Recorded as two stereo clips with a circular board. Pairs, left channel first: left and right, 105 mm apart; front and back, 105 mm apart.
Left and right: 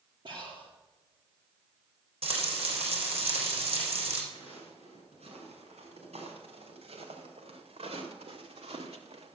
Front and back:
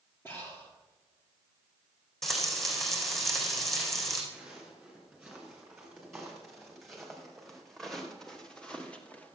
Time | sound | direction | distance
0.2 | breathing | 65° right | 3.5 m
2.2 | frying | 85° right | 3.5 m
4.3 | footsteps | 95° right | 7 m